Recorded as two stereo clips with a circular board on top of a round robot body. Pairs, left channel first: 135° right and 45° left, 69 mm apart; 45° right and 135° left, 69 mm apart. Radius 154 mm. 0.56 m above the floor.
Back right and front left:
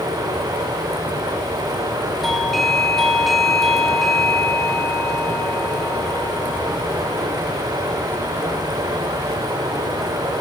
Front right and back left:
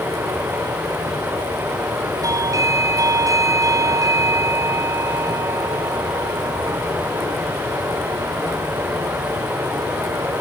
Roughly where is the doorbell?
Behind left.